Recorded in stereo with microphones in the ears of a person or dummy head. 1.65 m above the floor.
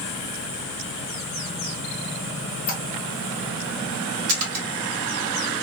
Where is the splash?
40° right (ahead or behind), 0.9 m.